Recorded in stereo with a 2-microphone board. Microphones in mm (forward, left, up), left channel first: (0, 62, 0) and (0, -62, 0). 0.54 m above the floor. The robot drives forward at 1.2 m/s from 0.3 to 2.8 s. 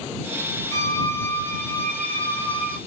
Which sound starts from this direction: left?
A violin, at 0.7 s.